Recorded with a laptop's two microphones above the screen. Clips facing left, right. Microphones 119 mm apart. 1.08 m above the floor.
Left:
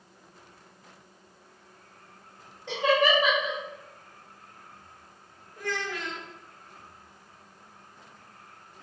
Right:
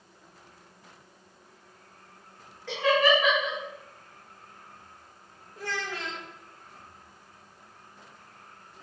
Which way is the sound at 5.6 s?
30° right (ahead or behind).